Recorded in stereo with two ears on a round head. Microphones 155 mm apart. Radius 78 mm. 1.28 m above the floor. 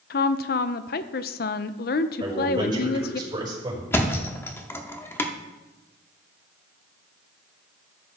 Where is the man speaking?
25° right (ahead or behind), 5 m.